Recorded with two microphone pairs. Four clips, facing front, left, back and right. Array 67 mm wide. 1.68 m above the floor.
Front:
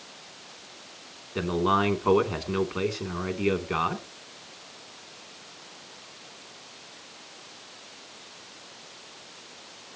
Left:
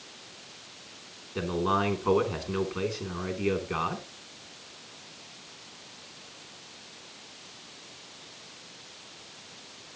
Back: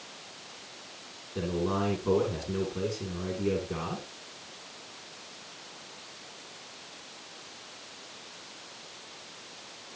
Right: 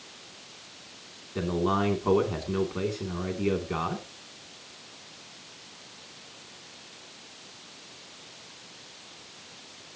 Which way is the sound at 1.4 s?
5° left.